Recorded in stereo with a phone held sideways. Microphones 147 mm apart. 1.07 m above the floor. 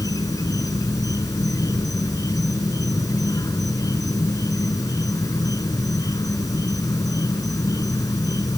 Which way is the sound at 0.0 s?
25° left (ahead or behind).